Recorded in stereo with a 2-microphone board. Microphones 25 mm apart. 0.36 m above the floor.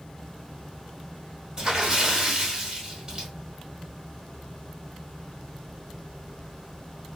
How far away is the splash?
About 1.4 m.